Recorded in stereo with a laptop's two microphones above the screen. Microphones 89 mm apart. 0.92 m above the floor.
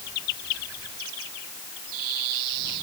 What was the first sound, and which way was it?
Only background noise.